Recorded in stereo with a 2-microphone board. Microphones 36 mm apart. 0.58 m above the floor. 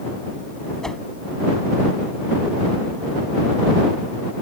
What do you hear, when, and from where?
0.8 s a whoosh: 15° left (ahead or behind)